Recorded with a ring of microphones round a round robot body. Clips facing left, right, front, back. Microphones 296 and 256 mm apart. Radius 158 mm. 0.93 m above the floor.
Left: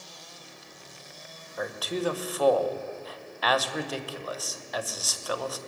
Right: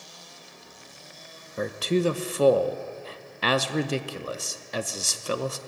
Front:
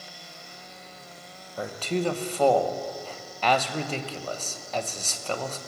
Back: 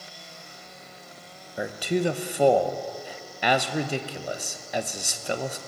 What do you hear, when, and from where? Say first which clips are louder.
1.6 s a man speaking: right 6 dB, back 2 dB; 115° right, 0.7 m